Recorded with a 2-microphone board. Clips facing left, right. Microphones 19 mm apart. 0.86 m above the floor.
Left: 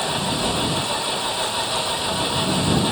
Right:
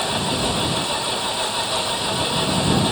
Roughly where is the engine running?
Centre.